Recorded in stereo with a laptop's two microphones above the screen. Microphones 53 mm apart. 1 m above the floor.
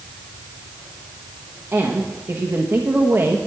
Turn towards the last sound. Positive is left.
turn(degrees=-55)  # may be behind; listen again after turning